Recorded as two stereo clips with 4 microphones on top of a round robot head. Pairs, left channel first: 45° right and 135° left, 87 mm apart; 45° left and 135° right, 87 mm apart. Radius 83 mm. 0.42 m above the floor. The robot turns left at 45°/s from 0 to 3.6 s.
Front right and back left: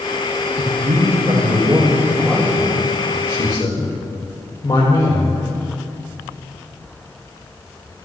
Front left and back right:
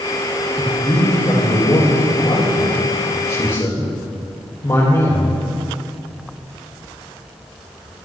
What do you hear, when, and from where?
0.6 s a man speaking: 130° left, 1.9 m; by 5.4 s 5° right, 1.9 m